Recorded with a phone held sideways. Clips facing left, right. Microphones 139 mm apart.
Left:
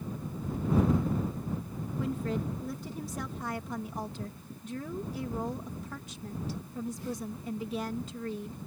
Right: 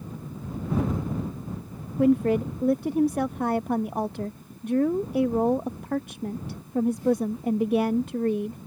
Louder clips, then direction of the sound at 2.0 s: Right 13 dB; 65° right (ahead or behind).